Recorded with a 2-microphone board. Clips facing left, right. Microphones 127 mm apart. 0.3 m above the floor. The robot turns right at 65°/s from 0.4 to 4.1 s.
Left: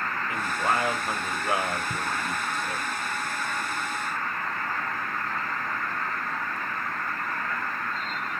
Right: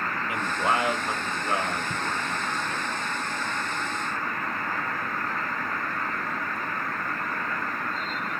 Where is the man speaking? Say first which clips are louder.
Right 1 dB; 15° right (ahead or behind), 0.9 m; by 2.9 s 20° left (ahead or behind), 0.9 m.